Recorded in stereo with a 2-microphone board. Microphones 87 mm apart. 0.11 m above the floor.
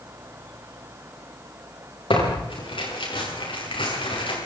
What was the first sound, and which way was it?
Tearing paper, 85° left.